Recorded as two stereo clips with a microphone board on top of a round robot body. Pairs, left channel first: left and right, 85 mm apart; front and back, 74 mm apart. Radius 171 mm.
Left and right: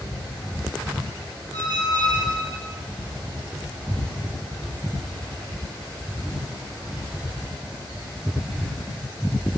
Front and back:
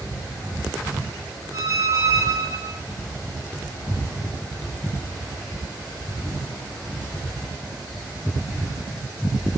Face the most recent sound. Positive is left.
turn(degrees=-130)